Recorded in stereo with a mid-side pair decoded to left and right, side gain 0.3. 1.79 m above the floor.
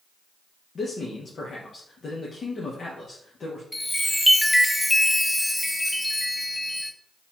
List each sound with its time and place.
0.8 s a man speaking: 65° left, 1.1 m
3.7 s a chime: 10° left, 0.6 m